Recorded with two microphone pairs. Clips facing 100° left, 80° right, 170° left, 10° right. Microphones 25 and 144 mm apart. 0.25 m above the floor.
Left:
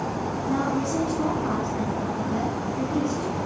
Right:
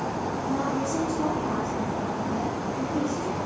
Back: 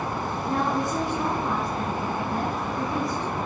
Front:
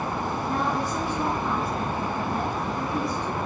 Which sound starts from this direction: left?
A woman speaking, at 0.5 s.